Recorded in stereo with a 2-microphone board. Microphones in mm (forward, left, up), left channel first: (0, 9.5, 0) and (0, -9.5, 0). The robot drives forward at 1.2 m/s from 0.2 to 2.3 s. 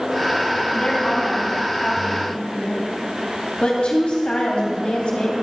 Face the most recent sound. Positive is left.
turn(degrees=75)  # may be behind; listen again after turning